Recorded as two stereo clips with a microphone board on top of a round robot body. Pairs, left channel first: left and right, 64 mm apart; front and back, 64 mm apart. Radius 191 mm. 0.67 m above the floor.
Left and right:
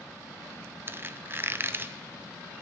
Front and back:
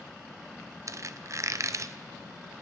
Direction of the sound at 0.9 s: 145° right.